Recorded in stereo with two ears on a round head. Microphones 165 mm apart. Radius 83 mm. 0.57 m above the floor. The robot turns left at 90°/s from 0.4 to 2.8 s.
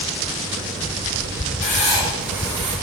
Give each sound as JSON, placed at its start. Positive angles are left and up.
{"t": 1.6, "sound": "writing", "azimuth_deg": 55, "distance_m": 2.5}